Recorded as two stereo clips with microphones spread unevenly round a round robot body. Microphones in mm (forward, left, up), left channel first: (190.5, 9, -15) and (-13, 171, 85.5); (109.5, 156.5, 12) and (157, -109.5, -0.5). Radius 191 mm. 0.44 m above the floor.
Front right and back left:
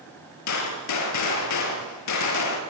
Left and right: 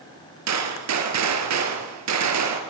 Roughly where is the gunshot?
Ahead right.